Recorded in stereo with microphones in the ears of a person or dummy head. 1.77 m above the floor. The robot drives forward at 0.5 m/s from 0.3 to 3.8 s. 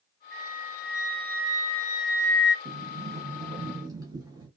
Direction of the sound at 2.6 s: 35° right (ahead or behind).